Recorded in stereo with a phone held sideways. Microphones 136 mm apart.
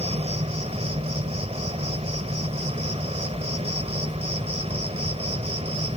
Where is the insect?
50° right (ahead or behind).